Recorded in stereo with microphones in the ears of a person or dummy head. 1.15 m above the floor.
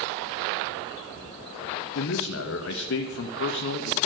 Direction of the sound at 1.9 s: 70° left (ahead or behind).